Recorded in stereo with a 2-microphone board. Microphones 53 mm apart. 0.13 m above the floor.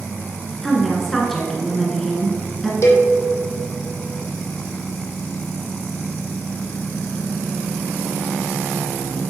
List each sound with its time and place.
0.6 s a woman speaking: 5° left (ahead or behind), 1.5 m
2.8 s a cowbell: 60° left (ahead or behind), 1.4 m